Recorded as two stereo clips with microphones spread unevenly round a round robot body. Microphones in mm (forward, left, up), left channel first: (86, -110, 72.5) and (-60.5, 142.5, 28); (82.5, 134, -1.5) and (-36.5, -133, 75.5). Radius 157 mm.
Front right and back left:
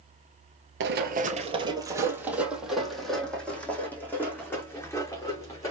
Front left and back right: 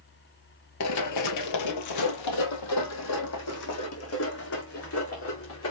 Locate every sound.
0.8 s running footsteps: 85° left, 1.1 m; by 5.7 s 20° left, 5 m